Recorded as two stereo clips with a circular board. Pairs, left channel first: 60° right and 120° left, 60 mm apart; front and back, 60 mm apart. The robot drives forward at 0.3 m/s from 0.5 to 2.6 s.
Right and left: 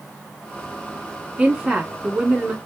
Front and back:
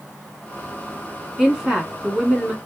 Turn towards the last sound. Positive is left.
turn(degrees=145)